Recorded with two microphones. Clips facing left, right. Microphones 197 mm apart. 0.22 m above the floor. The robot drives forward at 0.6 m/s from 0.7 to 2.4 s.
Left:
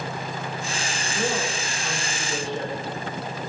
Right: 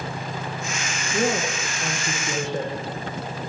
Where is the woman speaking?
60° right (ahead or behind), 8 m; by 2.7 s 65° right (ahead or behind), 7.5 m.